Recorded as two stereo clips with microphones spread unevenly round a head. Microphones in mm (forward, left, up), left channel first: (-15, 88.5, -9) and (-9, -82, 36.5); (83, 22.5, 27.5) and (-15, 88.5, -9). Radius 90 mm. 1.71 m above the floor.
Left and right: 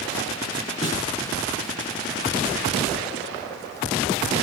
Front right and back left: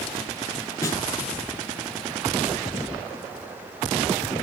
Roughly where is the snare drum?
Ahead left.